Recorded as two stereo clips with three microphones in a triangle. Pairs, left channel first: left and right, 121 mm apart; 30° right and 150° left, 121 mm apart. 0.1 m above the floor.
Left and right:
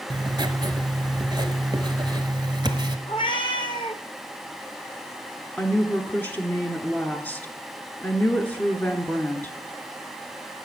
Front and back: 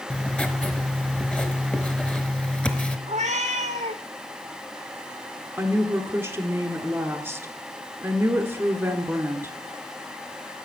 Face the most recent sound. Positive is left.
turn(degrees=130)